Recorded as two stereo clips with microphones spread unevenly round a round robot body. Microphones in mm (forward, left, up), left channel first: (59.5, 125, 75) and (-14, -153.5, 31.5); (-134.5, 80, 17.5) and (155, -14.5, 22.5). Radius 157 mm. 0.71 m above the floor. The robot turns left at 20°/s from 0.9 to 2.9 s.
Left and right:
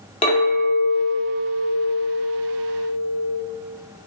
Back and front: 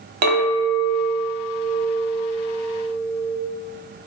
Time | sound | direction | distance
0.2 | a clink | 5° left | 0.8 m